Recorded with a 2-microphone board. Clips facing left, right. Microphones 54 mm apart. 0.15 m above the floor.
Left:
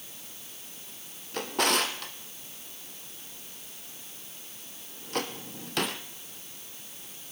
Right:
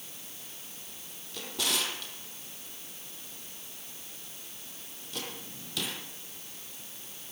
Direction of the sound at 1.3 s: 55° left (ahead or behind).